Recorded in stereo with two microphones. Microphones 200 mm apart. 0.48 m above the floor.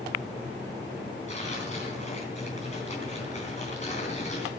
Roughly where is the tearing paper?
Left.